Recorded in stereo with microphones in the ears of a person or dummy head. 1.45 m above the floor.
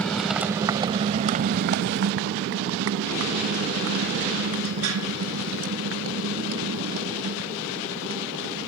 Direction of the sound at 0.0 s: 5° left (ahead or behind).